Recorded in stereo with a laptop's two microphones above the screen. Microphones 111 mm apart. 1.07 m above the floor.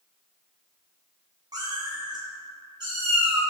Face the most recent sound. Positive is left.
turn(degrees=-45)  # may be behind; listen again after turning